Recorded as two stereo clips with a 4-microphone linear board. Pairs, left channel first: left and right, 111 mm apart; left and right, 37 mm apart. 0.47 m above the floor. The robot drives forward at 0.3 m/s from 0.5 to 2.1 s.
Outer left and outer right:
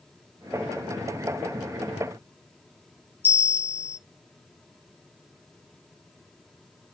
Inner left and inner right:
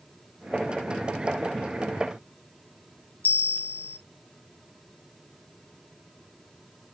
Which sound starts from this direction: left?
A bell, at 3.2 s.